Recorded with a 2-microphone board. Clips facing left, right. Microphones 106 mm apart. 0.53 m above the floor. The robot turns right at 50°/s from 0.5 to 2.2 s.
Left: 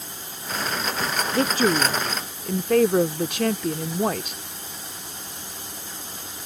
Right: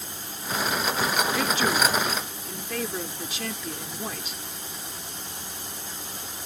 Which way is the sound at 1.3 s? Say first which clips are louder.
Left 4 dB; 40° left.